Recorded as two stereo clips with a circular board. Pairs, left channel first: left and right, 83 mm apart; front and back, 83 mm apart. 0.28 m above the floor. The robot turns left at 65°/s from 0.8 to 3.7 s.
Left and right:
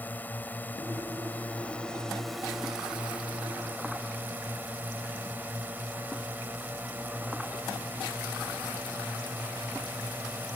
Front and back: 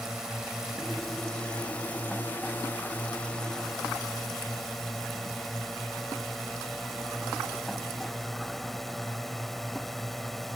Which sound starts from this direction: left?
A drone, at 0.0 s.